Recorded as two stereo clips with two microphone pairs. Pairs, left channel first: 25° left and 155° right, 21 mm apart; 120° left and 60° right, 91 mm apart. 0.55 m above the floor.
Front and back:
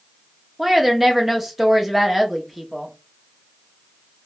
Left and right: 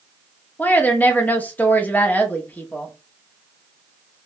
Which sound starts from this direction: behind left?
A woman speaking, at 0.6 s.